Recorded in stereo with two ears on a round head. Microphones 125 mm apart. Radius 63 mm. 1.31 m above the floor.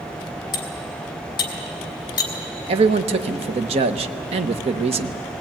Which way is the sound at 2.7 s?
40° right (ahead or behind).